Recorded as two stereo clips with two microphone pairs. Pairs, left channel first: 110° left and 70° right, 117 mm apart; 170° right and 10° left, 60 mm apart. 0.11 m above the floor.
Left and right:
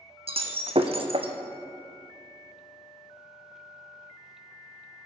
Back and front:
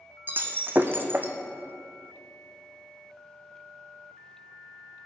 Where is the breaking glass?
40° right, 1.0 m.